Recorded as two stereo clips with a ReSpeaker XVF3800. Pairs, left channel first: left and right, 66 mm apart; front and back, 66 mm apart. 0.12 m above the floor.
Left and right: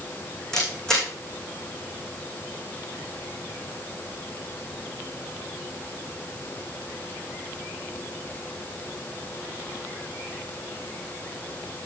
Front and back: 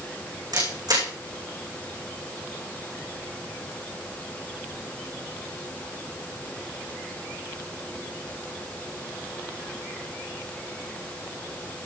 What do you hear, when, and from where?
0.5 s a camera shutter: 175° left, 6 m